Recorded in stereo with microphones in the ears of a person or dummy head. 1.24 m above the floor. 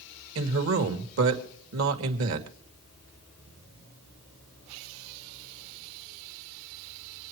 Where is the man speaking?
75° right (ahead or behind), 2 m.